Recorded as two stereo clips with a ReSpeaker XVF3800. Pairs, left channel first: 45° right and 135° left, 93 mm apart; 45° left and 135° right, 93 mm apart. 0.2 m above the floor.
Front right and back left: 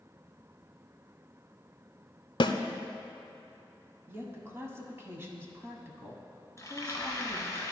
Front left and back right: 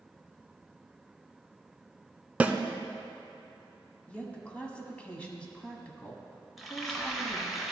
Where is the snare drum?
60° right, 0.5 m.